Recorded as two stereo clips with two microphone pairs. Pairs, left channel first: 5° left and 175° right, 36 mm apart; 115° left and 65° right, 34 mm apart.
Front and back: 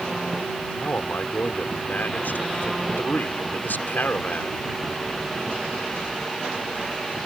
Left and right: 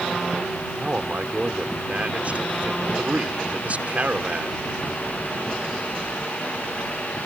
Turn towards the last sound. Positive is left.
turn(degrees=-20)